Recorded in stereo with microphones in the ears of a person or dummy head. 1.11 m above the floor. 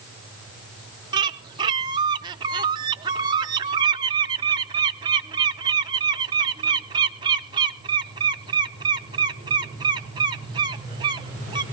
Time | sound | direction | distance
1.1 | a bird | 25° right (ahead or behind) | 0.6 m